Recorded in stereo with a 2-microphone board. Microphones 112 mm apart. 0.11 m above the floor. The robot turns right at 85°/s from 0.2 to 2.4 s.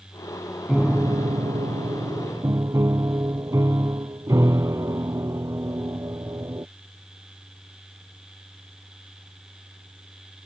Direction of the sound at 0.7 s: 175° right.